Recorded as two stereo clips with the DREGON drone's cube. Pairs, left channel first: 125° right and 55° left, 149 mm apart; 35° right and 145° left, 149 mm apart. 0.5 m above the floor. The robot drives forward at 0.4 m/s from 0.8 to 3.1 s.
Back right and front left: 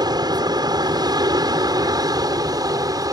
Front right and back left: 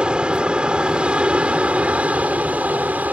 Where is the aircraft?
70° left; by 3.1 s 80° left.